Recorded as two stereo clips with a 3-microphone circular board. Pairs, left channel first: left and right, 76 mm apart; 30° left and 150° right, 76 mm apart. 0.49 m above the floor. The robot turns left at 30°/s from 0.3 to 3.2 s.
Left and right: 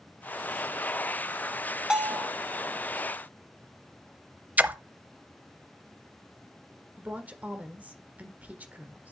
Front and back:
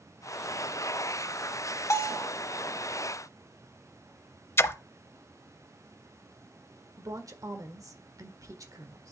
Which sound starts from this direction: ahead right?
A splash, at 4.6 s.